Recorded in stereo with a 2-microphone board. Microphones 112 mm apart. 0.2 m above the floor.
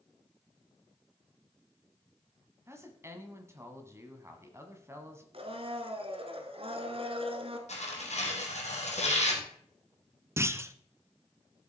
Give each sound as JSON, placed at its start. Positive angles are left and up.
{"t": 2.7, "sound": "a woman speaking", "side_deg": -25, "distance_m": 1.6}
{"t": 5.3, "sound": "a blender", "side_deg": -55, "distance_m": 1.3}
{"t": 7.7, "sound": "tearing paper", "side_deg": 80, "distance_m": 2.0}
{"t": 10.4, "sound": "a clunk", "side_deg": -25, "distance_m": 0.6}